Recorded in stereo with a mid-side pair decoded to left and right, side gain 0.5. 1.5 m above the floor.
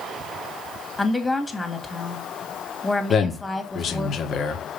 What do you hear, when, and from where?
1.0 s a woman speaking: 15° left, 2 m
3.1 s a man speaking: 55° left, 1.9 m